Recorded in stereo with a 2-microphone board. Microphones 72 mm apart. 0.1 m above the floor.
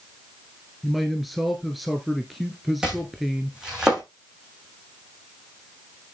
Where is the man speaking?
Centre (ahead or behind), 1.6 m.